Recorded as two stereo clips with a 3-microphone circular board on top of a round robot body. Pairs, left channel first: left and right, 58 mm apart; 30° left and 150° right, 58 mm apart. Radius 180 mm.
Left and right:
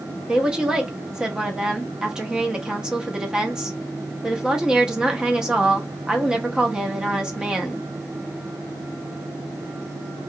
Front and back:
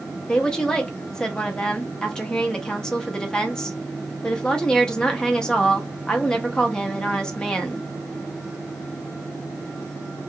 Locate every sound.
0.3 s a woman speaking: 30° right, 0.9 m